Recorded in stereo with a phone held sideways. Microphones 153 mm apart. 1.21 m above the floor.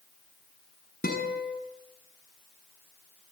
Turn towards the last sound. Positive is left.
turn(degrees=75)  # may be behind; listen again after turning